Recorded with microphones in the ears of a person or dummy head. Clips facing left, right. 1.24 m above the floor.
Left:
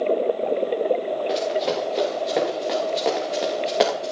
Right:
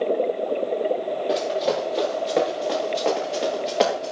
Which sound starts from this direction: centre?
Running footsteps, at 1.3 s.